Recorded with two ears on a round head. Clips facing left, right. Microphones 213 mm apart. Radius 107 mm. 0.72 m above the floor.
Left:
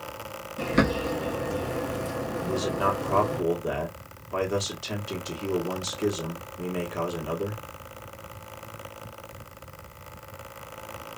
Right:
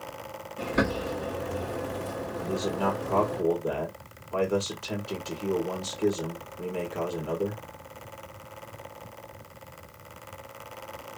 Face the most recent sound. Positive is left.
turn(degrees=20)  # may be behind; listen again after turning